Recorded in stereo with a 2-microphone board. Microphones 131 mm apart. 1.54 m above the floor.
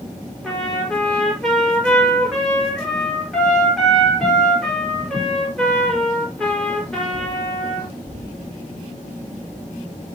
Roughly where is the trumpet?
Centre.